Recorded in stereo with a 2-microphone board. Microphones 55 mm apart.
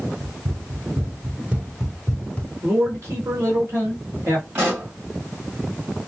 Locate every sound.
0.2 s running footsteps: 50° right (ahead or behind), 2 m; by 2.5 s 30° left (ahead or behind), 1.1 m
2.6 s a man speaking: 55° right (ahead or behind), 1.7 m
4.5 s a pop: 40° right (ahead or behind), 3 m